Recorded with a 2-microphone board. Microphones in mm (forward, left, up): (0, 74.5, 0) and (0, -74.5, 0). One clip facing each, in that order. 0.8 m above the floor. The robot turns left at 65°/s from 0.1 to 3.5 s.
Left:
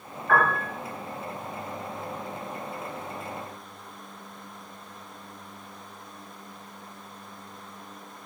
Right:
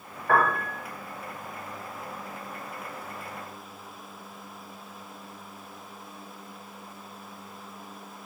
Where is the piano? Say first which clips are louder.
Even; 60° right (ahead or behind), 1.9 m.